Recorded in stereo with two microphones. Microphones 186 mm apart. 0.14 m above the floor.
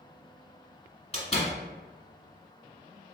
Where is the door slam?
35° left (ahead or behind), 1.3 m.